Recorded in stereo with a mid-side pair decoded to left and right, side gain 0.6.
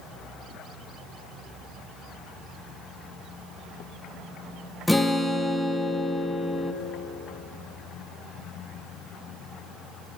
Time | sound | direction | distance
4.9 | a guitar | 5° left | 0.9 m